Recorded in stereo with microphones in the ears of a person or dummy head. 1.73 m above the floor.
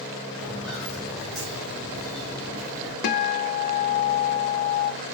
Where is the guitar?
55° left (ahead or behind), 0.6 m.